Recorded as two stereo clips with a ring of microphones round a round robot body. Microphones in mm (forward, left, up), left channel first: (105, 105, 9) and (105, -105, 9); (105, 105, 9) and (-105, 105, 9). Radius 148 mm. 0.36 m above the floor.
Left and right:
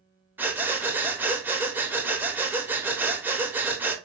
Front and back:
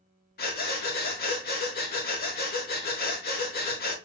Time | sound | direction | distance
0.4 | breathing | 15° right | 0.8 m